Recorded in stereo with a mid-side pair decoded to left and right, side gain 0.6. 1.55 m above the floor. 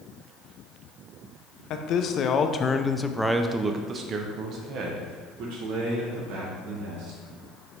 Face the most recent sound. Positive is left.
turn(degrees=-70)